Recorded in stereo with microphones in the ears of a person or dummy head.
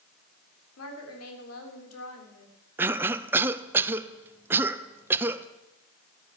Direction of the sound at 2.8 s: 15° right (ahead or behind).